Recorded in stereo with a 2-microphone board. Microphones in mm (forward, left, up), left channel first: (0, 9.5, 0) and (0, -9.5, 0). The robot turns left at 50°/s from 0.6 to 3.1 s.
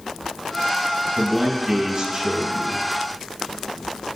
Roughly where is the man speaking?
Ahead.